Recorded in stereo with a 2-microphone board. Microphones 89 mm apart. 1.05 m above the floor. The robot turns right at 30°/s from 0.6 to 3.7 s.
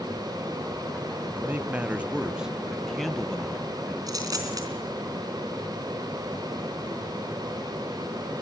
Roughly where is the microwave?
I don't hear a microwave.